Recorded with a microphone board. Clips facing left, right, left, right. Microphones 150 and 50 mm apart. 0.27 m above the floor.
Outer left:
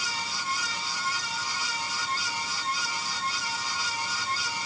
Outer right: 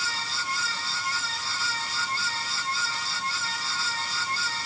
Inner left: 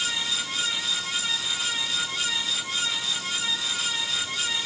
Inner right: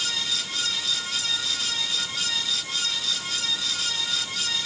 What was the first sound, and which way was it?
Only background noise.